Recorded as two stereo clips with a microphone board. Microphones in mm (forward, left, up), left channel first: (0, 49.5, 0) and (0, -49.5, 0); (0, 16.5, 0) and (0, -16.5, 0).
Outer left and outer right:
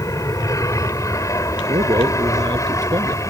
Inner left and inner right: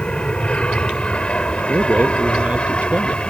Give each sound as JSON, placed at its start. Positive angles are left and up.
{"t": 0.0, "sound": "an aircraft", "side_deg": 35}
{"t": 1.7, "sound": "a man speaking", "side_deg": -45}